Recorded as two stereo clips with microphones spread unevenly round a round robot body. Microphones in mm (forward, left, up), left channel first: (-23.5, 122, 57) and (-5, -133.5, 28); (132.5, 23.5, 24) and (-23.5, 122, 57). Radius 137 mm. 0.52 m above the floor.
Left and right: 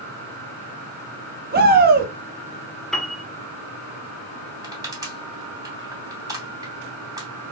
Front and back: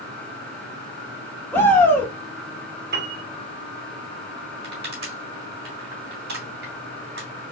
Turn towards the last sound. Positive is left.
turn(degrees=-160)